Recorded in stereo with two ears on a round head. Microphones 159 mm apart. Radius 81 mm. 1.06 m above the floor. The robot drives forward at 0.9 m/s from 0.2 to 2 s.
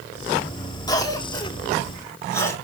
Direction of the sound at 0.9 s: 25° left (ahead or behind).